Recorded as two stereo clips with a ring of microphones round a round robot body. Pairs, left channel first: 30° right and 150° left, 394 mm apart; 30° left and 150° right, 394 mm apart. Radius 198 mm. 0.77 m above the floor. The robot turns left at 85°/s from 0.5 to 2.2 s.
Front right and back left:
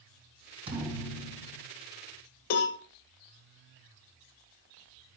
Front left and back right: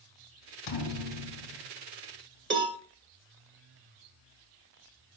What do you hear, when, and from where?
0.7 s a thud: 75° left, 2.5 m; by 1.6 s 10° right, 2.5 m
2.5 s a cowbell: 85° right, 1.4 m